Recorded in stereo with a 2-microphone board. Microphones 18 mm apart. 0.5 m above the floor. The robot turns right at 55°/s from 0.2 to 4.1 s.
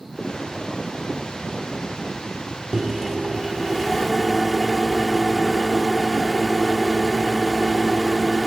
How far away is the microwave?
About 0.8 m.